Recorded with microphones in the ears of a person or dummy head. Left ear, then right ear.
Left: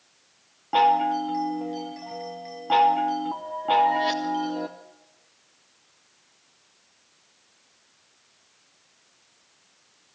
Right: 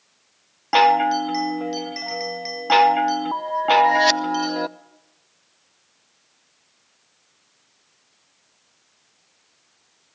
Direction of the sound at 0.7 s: 65° right (ahead or behind).